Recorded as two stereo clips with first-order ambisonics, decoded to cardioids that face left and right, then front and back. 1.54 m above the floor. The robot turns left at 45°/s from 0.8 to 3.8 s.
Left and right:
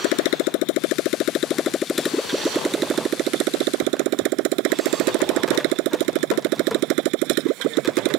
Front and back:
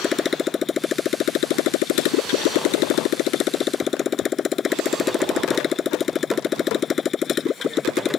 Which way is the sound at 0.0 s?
70° left.